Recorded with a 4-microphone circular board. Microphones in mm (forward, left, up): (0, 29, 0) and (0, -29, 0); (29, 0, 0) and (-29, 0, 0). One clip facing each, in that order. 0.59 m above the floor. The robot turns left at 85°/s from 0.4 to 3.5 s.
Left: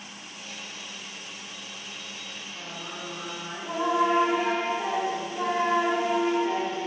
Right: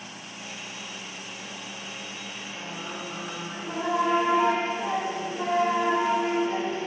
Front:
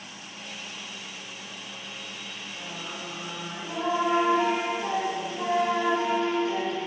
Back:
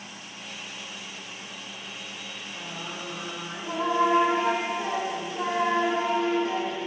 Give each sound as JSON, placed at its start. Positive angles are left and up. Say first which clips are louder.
{"t": 2.5, "sound": "singing", "louder": "right 2 dB, back 1 dB", "azimuth_deg": -155, "distance_m": 2.0}